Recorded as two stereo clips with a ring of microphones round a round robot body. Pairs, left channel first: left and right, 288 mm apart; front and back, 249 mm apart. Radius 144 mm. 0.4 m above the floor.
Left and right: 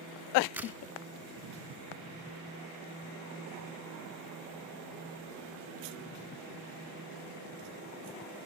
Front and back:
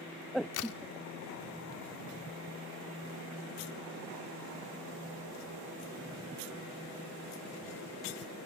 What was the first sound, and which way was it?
A crack, 5° right.